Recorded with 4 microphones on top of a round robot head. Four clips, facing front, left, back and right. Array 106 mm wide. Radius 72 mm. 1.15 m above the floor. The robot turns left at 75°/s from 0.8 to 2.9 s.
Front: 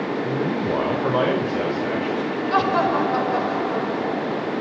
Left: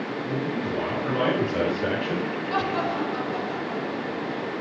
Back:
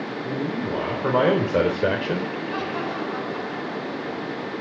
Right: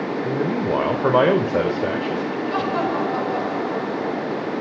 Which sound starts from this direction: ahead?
Laughter, at 2.5 s.